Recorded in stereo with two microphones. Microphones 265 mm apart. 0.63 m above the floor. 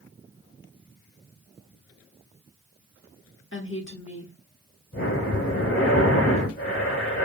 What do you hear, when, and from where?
3.5 s a woman speaking: 50° left (ahead or behind), 1.3 m
4.9 s breathing: 55° left (ahead or behind), 1.7 m